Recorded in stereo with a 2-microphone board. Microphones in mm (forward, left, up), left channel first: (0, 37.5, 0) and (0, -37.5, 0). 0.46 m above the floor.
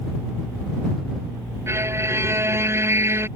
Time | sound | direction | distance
1.7 | a violin | 35° right (ahead or behind) | ?